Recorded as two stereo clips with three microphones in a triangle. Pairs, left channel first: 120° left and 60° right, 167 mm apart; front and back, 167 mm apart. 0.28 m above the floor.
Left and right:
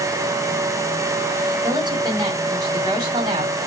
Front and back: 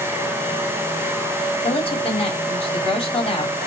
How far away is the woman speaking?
About 1.7 m.